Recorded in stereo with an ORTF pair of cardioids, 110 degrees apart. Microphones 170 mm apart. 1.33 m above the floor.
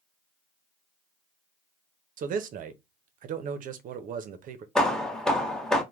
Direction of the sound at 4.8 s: 5° left.